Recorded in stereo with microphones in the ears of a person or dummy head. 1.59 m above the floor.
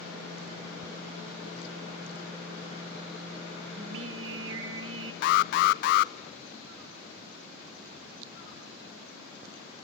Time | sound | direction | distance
3.8 | singing | 75° right (ahead or behind) | 2 m
5.2 | an alarm | 60° left (ahead or behind) | 0.7 m